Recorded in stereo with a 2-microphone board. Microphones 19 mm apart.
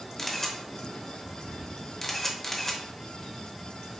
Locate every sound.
0.2 s a camera shutter: 20° left (ahead or behind), 0.7 m